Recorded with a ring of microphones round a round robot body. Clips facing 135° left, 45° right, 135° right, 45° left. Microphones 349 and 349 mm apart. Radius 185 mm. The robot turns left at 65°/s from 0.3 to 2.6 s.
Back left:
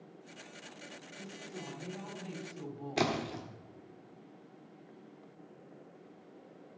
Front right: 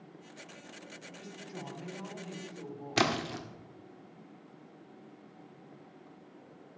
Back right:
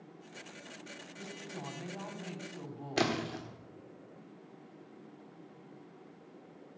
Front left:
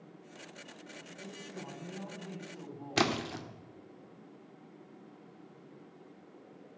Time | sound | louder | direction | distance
1.1 | a woman speaking | even, even | 85° right | 3.5 m
3.0 | a splash | front right 1 dB, front left 1 dB | 10° right | 1.6 m